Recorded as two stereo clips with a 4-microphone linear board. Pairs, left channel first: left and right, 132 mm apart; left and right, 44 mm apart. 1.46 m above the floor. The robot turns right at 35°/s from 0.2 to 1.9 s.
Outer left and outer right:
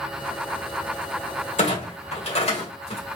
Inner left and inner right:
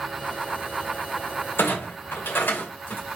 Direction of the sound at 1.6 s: 65° left (ahead or behind).